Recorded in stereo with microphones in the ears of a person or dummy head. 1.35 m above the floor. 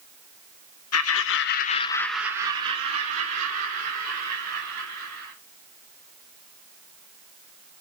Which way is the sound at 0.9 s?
70° left (ahead or behind).